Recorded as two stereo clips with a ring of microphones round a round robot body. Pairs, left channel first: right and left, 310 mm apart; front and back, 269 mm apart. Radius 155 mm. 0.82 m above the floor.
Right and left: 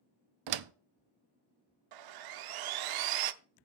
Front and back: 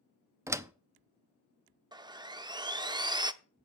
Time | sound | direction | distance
0.5 | a door slam | 100° left | 0.7 m
1.9 | sawing | 105° left | 0.7 m